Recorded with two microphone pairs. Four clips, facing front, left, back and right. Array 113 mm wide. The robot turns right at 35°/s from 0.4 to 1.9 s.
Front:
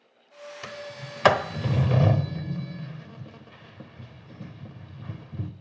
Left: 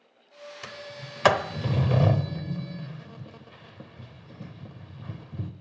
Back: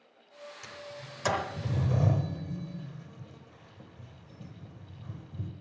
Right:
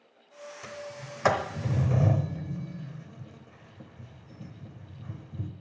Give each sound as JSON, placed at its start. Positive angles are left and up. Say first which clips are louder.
{"t": 0.6, "sound": "a sliding door", "louder": "right 2 dB, front 7 dB", "azimuth_deg": 25, "distance_m": 0.9}